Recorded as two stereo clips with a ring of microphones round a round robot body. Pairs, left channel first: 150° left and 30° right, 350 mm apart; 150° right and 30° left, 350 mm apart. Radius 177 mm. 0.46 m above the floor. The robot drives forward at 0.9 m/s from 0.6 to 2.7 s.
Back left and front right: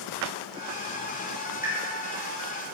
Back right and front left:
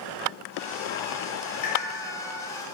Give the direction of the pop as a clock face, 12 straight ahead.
4 o'clock.